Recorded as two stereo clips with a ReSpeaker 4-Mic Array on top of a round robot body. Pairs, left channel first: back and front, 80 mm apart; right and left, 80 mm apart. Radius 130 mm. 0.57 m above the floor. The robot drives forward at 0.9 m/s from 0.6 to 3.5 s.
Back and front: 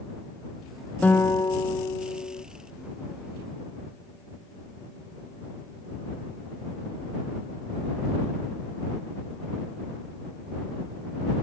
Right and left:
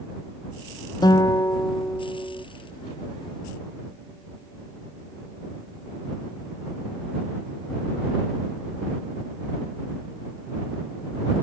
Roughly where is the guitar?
Right.